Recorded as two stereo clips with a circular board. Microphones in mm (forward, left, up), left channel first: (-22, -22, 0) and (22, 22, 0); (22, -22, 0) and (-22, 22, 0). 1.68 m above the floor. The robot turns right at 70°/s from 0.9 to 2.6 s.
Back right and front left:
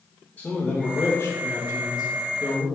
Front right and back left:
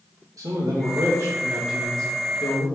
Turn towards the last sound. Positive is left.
turn(degrees=-80)